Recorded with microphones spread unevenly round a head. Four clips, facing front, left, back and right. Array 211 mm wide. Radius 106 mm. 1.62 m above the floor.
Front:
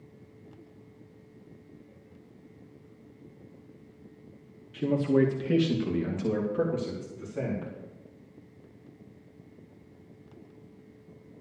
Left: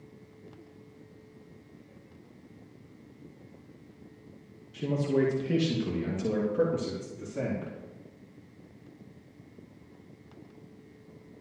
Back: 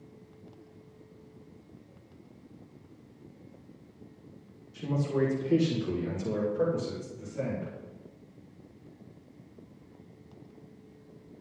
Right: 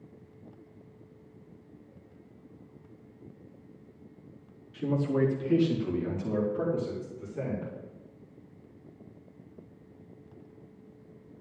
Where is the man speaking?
5° left, 2 m; by 7.7 s 55° left, 4 m.